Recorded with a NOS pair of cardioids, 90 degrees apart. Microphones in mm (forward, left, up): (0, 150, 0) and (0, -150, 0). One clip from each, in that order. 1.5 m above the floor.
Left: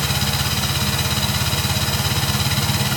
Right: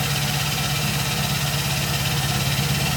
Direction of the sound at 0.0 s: 65° left.